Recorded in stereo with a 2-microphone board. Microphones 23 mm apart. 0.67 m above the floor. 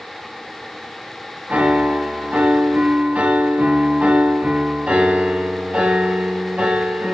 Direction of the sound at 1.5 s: 70° right (ahead or behind).